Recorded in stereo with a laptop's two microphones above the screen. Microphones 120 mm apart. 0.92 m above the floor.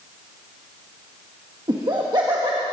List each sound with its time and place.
1.7 s laughter: 40° right (ahead or behind), 1.4 m